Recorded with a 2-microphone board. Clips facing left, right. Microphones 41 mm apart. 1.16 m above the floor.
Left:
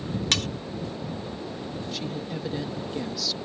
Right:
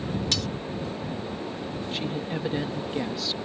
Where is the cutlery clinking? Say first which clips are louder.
Left 6 dB; 55° left (ahead or behind).